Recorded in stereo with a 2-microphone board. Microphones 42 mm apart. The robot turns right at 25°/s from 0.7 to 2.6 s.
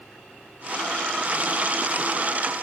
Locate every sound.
Only background noise.